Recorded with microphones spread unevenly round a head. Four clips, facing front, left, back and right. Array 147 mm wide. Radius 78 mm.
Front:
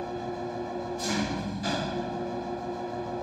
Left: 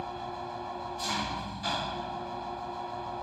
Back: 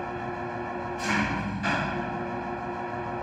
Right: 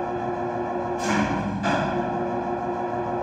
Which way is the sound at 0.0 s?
85° right.